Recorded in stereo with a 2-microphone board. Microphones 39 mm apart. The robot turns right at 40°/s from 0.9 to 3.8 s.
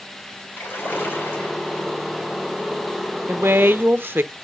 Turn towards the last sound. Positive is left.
turn(degrees=-65)  # may be behind; listen again after turning